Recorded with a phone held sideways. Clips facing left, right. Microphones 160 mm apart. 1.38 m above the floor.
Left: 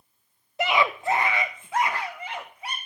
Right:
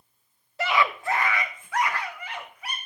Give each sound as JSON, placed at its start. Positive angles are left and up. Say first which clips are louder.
{"t": 0.6, "sound": "a scream", "louder": "left 1 dB", "side_deg": 20, "distance_m": 0.8}